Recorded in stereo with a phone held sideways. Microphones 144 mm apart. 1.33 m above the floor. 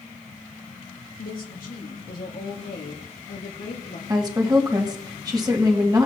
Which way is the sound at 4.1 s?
30° right (ahead or behind).